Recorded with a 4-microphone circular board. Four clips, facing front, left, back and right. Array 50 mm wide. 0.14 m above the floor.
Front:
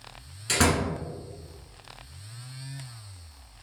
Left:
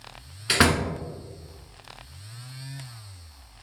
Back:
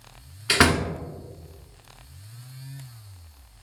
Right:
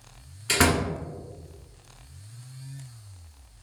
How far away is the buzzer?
I don't hear a buzzer.